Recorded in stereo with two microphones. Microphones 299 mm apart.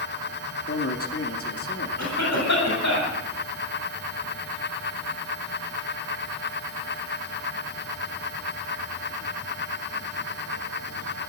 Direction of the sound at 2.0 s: 65° left (ahead or behind).